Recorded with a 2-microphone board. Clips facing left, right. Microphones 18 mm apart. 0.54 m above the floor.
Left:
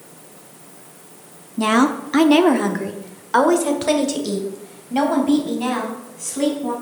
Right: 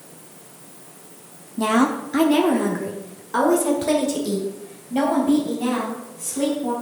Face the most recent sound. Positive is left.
turn(degrees=25)  # may be behind; listen again after turning